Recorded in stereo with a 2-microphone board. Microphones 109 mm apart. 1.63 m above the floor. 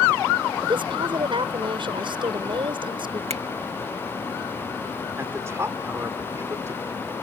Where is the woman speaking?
50° right (ahead or behind).